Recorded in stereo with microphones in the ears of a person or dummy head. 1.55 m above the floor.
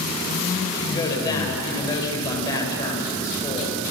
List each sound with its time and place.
0.7 s a woman speaking: 25° left (ahead or behind), 8 m